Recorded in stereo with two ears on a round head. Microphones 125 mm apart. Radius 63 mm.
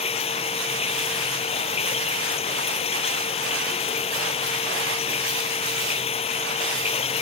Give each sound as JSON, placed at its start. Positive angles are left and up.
{"t": 0.0, "sound": "running water", "side_deg": 45}